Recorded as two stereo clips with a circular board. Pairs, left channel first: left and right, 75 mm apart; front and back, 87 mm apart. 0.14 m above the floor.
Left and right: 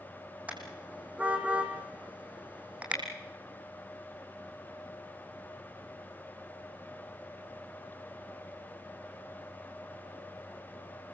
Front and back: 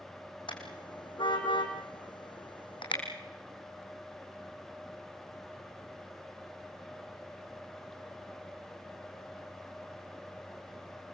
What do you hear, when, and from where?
0.5 s a car horn: 20° right, 4 m